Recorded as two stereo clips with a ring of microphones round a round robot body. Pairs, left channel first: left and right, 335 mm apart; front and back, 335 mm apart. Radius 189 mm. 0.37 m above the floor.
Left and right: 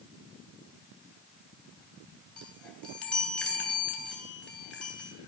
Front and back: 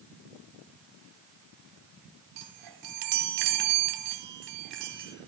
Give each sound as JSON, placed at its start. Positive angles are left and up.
{"t": 2.4, "sound": "a chime", "azimuth_deg": 175, "distance_m": 2.5}